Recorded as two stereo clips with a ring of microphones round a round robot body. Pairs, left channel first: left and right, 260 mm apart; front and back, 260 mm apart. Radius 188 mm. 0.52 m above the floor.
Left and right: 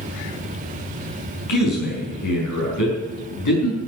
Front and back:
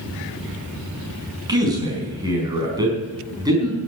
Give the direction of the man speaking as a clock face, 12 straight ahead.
9 o'clock.